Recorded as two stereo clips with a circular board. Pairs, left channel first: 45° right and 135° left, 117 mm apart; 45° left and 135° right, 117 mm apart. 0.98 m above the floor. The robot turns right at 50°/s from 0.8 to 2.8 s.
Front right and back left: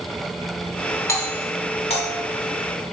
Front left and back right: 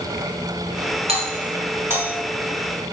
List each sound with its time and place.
1.1 s a doorbell: 110° right, 3 m; by 2.1 s 55° right, 3 m